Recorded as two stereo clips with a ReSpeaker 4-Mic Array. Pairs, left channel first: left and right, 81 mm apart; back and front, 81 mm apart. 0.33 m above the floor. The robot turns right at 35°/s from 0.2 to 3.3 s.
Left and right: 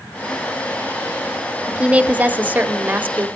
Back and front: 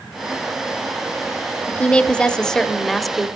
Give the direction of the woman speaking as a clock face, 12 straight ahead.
5 o'clock.